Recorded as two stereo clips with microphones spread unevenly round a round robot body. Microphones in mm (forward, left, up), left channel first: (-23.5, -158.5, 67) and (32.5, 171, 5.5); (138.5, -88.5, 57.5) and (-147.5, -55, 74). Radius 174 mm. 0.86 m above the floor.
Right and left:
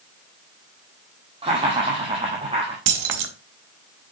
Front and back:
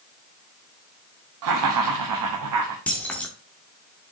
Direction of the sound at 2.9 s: 80° left.